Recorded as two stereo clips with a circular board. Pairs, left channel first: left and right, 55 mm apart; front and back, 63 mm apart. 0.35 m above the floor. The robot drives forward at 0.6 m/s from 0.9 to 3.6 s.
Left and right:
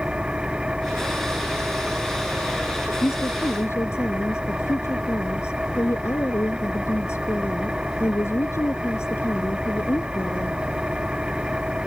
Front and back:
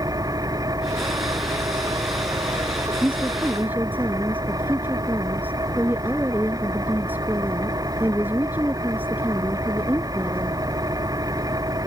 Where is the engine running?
165° right.